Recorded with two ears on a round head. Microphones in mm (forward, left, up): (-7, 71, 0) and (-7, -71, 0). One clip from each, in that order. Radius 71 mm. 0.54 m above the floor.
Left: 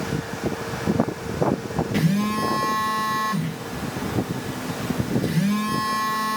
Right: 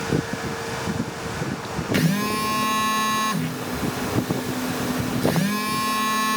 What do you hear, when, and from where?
1.9 s a phone buzzing: 45° right (ahead or behind), 0.6 m